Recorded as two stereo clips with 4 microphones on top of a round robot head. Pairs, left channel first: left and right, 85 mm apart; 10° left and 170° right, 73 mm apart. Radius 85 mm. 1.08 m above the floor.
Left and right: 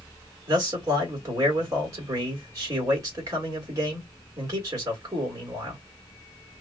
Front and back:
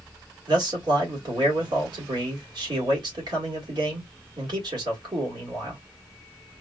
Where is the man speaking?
145° right, 1.7 m.